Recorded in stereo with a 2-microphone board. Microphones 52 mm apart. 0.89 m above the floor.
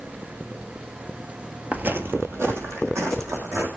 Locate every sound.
1.7 s footsteps: 30° right (ahead or behind), 1.0 m; by 3.7 s 70° right (ahead or behind), 3.5 m